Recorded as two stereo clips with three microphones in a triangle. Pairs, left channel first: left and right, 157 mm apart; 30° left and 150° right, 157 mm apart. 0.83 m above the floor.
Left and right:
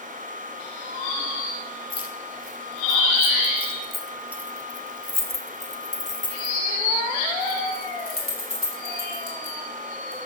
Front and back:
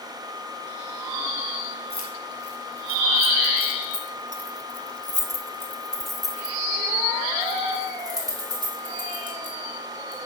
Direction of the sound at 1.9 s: 35° left.